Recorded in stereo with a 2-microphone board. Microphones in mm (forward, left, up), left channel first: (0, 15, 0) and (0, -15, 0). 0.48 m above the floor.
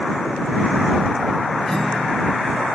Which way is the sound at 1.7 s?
20° left (ahead or behind).